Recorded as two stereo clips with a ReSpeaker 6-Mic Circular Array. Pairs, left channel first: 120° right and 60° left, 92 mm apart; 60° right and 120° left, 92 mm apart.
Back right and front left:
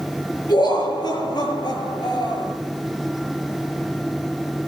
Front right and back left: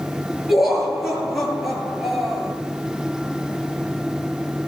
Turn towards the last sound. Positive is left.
turn(degrees=-150)